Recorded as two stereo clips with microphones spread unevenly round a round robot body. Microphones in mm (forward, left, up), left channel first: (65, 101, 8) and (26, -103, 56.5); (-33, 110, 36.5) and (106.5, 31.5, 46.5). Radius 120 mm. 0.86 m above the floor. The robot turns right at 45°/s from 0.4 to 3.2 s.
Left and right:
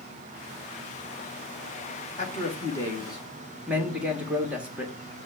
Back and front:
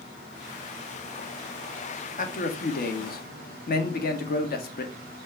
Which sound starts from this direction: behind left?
A man speaking, at 2.2 s.